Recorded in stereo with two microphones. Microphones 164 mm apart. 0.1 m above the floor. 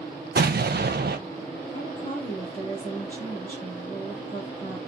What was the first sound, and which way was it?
An explosion, 75° right (ahead or behind).